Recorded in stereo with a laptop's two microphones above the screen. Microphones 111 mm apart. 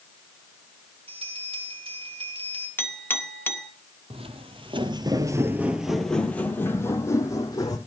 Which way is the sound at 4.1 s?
65° right (ahead or behind).